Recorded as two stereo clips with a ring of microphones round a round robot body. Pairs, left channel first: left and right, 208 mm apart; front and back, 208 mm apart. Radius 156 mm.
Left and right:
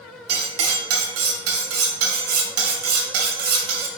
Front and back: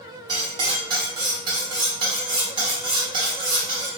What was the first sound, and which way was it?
Cutlery clinking, 105° right.